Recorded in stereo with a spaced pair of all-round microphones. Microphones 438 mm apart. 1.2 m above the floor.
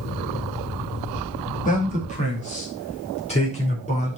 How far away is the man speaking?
About 2.5 m.